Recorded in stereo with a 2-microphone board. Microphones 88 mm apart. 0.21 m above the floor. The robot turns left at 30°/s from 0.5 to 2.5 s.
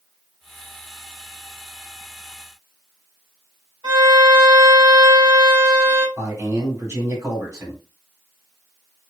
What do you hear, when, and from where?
3.8 s a violin: 45° right (ahead or behind), 1.2 m
6.2 s a man speaking: 35° right (ahead or behind), 1.9 m